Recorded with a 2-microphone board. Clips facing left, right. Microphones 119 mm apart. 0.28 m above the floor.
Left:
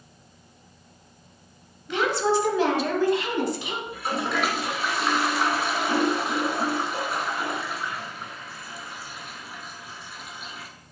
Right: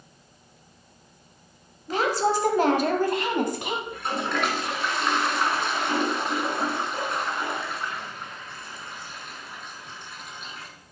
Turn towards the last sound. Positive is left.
turn(degrees=5)  # may be behind; listen again after turning